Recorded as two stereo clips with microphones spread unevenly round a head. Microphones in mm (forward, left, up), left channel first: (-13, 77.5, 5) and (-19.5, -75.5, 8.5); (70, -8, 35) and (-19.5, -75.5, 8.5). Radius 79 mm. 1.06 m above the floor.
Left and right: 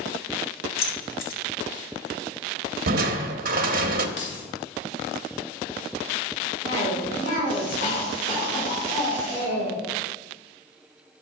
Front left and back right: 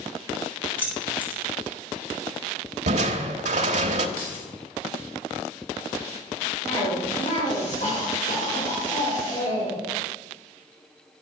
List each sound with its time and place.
0.8 s keys jangling: 120° left, 2 m
2.9 s crushing: 125° right, 0.8 m
4.2 s keys jangling: 65° left, 3 m
6.6 s a cough: 55° left, 5 m